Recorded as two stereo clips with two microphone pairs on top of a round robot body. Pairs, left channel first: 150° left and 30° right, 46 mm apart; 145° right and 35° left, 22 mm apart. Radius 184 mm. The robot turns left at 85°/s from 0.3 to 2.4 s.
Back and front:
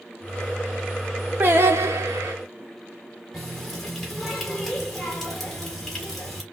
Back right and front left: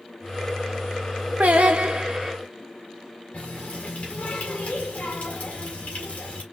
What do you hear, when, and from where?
1.4 s singing: 30° left, 0.7 m; by 2.4 s 50° right, 0.7 m
3.3 s a running tap: 120° right, 2.5 m